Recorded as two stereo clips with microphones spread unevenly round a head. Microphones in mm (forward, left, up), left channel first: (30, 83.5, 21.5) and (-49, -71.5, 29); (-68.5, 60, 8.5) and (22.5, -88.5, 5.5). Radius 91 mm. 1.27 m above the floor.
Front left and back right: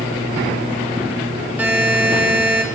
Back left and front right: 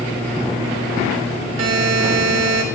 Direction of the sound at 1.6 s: 35° right.